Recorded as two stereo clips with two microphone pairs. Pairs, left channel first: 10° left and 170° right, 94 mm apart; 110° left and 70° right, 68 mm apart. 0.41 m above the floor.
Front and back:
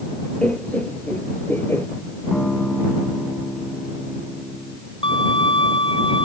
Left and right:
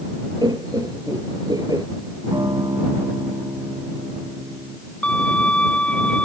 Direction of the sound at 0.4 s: 65° right.